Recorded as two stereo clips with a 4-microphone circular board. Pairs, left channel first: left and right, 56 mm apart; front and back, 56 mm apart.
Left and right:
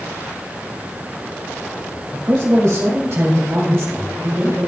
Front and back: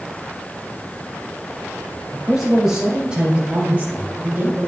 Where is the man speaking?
90° right, 3 m; by 4.7 s 140° right, 2.5 m.